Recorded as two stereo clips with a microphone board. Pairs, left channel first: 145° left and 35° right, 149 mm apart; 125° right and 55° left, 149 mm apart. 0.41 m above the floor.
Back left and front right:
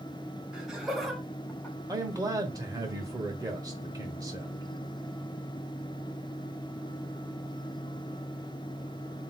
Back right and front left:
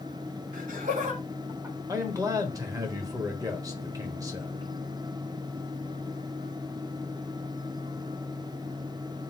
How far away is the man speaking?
About 1.1 m.